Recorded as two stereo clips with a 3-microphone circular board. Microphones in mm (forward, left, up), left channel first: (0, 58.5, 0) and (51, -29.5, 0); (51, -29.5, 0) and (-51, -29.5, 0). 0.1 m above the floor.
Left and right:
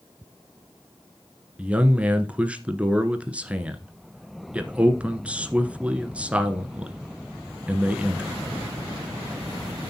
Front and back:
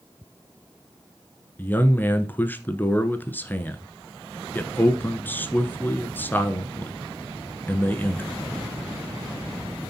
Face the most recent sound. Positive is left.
turn(degrees=-10)